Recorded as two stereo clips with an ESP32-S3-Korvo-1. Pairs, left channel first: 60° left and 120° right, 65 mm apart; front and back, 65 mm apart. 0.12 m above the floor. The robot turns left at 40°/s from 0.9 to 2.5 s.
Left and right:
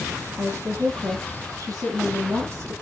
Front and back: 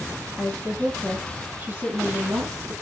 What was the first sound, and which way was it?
A woman speaking, 95° right.